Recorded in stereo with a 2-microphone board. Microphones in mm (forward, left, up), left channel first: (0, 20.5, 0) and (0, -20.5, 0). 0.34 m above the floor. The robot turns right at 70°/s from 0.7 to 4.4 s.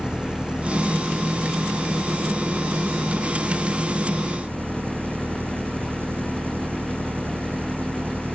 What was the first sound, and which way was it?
An engine running, 25° right.